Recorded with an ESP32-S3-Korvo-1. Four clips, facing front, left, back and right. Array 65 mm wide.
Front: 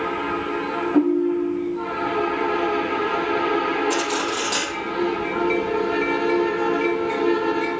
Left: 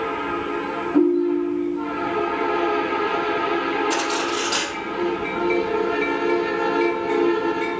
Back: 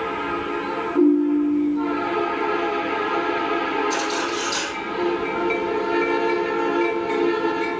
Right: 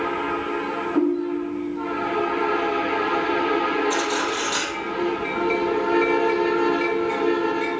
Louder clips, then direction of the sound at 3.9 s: Even, even; 65° left.